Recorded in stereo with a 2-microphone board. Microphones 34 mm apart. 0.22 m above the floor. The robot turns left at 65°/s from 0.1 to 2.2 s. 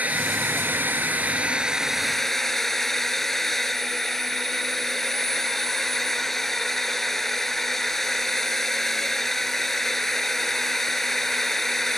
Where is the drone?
50° right; by 12.0 s 170° left.